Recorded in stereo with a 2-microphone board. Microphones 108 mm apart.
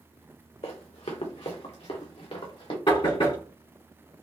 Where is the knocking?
55° left (ahead or behind), 1.7 m.